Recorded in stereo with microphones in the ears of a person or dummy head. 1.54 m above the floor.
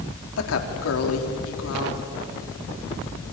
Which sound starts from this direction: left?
A woman speaking, at 0.4 s.